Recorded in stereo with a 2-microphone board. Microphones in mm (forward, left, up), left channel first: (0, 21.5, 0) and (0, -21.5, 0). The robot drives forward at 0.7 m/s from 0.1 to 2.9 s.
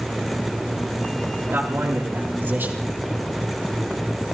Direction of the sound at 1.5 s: 55° right (ahead or behind).